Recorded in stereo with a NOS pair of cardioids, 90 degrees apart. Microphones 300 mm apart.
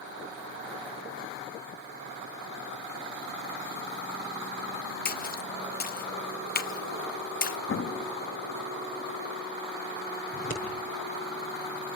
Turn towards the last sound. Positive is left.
turn(degrees=30)